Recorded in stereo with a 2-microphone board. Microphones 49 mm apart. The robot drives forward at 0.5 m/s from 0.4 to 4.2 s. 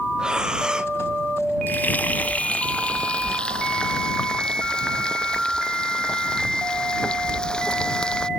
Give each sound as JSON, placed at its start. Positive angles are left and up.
{"t": 0.2, "sound": "breathing", "side_deg": -15}
{"t": 1.7, "sound": "frying", "side_deg": 40}